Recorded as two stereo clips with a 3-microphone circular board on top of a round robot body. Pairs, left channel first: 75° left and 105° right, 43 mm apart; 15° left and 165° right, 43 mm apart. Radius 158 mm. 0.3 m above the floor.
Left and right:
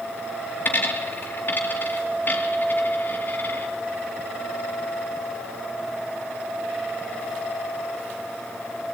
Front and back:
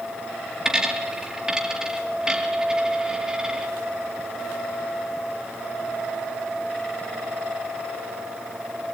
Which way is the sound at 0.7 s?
120° left.